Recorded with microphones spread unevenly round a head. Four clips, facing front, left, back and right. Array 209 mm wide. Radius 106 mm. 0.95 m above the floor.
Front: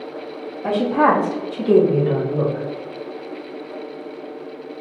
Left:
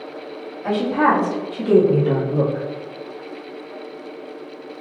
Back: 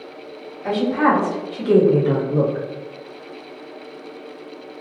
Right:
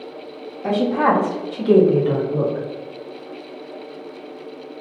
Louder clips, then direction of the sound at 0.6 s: Even, front 1 dB; 25° right.